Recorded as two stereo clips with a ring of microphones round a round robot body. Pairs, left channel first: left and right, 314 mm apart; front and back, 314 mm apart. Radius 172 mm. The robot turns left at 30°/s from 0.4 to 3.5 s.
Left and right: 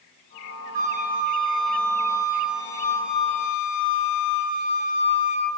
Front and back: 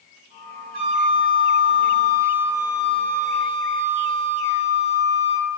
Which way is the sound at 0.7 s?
165° right.